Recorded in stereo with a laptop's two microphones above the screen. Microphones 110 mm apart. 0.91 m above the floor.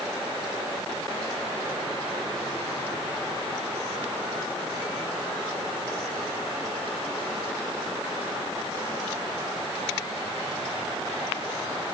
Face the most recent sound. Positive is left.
No sound to turn to.